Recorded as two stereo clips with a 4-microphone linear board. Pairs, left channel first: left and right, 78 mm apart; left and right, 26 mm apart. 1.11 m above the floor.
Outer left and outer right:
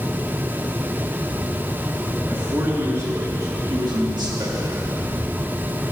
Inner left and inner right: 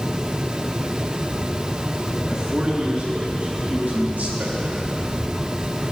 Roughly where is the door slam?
I don't hear a door slam.